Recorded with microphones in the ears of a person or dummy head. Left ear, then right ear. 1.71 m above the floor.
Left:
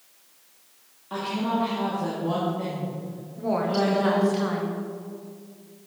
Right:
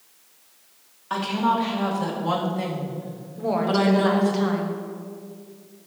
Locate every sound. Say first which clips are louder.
1.1 s a woman speaking: right 5 dB; 50° right (ahead or behind), 2 m; by 4.4 s 40° right (ahead or behind), 0.9 m
3.4 s a woman speaking: right 2 dB; 5° right (ahead or behind), 1.1 m